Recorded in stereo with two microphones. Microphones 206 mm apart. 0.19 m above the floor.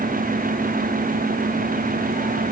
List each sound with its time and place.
Only background noise.